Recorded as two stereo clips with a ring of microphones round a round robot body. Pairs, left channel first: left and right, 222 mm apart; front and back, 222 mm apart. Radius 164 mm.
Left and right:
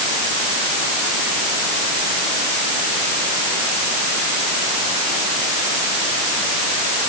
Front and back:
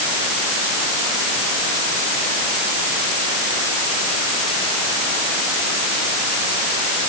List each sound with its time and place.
Only background noise.